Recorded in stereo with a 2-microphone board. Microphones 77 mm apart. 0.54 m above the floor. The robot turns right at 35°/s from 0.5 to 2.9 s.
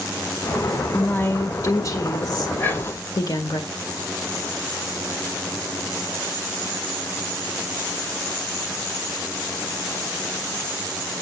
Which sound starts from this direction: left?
Whispering, at 2.6 s.